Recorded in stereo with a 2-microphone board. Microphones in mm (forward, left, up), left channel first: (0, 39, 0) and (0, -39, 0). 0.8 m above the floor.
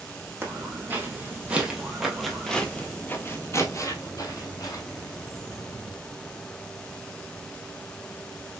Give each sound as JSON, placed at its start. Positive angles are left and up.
{"t": 0.4, "sound": "footsteps", "side_deg": -25, "distance_m": 1.7}